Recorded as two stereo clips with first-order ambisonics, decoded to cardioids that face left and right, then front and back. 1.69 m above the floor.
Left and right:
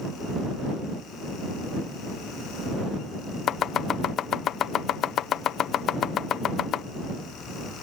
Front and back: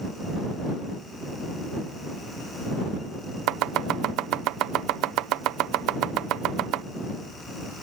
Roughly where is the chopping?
Behind left.